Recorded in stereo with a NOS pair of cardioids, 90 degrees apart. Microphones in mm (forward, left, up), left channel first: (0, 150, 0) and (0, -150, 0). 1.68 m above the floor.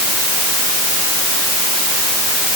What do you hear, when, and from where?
Only background noise.